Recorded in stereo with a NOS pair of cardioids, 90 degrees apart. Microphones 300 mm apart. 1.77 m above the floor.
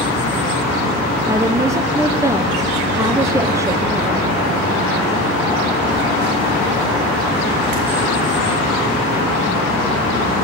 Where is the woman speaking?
10° right, 1.1 m.